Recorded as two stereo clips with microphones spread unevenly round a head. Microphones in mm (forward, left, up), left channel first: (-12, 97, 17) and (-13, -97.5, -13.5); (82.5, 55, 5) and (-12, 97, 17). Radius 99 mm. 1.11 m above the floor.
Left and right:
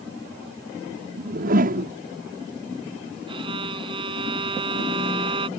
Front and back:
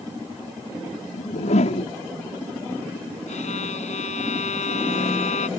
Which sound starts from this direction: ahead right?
A whoosh, at 1.2 s.